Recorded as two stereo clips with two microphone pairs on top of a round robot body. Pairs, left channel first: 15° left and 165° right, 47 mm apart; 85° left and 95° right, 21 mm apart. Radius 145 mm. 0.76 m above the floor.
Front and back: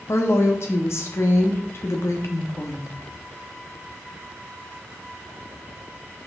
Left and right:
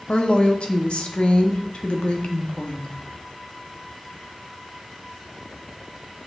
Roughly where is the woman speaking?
Ahead left.